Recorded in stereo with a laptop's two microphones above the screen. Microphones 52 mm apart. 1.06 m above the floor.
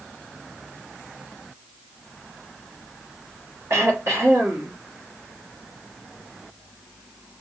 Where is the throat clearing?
65° right (ahead or behind), 1.5 m.